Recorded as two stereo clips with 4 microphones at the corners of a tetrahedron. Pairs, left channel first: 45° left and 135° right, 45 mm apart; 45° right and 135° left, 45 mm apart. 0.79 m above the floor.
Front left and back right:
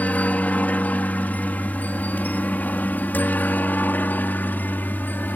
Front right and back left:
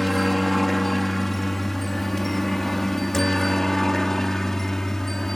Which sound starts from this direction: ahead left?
A helicopter, at 0.0 s.